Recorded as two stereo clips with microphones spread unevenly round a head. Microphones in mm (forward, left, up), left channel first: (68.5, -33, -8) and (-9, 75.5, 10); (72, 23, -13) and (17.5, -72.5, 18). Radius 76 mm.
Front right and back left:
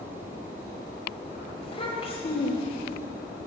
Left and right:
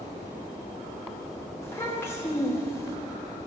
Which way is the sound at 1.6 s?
10° right.